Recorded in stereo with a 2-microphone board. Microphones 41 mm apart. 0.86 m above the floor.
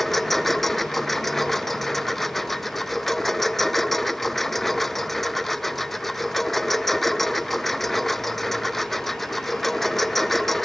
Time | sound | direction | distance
0.0 | a lawn mower | 5° left (ahead or behind) | ?